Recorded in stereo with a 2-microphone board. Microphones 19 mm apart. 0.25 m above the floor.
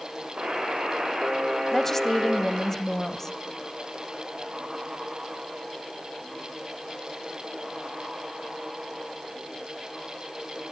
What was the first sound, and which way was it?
A buzzer, 65° right (ahead or behind).